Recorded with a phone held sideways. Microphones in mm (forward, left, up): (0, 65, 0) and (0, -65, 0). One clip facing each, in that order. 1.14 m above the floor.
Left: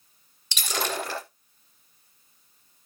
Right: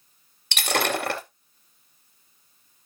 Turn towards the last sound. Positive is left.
turn(degrees=-60)  # may be behind; listen again after turning